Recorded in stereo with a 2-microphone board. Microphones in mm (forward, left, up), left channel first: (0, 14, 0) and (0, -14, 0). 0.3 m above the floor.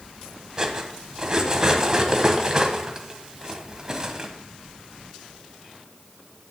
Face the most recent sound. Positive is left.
turn(degrees=-20)  # may be behind; listen again after turning